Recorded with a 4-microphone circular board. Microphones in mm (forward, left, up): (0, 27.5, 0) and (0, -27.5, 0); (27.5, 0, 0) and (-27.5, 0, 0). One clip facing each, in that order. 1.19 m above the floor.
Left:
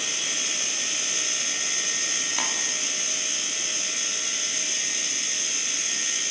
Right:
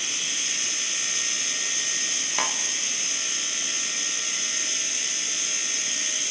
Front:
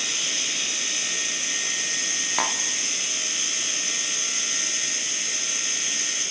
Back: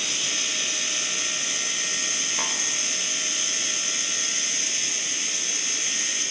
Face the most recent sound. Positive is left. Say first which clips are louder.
# right 4 dB, front 6 dB
turn(degrees=-15)